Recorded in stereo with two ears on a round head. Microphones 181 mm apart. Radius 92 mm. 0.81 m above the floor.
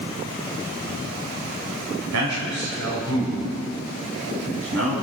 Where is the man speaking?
65° right (ahead or behind), 4 m; by 5.0 s 85° right, 7 m.